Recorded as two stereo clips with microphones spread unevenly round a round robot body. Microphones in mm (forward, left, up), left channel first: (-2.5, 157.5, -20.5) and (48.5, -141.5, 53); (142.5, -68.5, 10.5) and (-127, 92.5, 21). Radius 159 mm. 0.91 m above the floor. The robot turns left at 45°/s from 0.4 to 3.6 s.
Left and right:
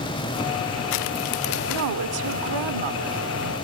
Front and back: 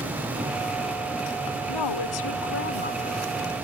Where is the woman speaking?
40° right; by 3.5 s 125° right.